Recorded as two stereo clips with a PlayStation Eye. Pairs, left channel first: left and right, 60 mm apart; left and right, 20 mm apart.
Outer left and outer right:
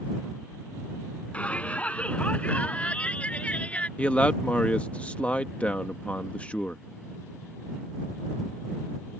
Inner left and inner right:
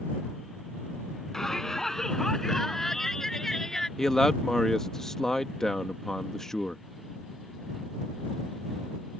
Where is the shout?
20° left (ahead or behind).